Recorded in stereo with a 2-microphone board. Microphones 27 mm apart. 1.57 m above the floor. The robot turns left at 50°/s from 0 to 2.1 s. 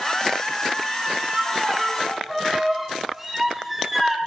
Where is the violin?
140° right, 0.6 m; by 4.2 s straight behind, 0.6 m.